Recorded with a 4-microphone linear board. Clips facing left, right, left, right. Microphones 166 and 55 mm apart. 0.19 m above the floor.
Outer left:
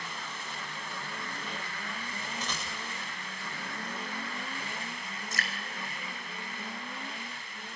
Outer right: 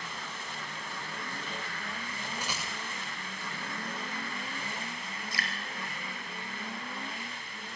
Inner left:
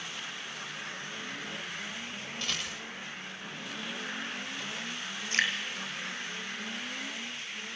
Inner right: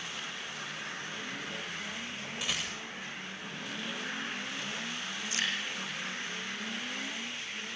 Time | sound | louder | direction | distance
2.4 | a rattle | even, even | 10° right (ahead or behind) | 9 m
5.3 | dripping | outer left 1 dB, inner left 6 dB | 45° left (ahead or behind) | 3.5 m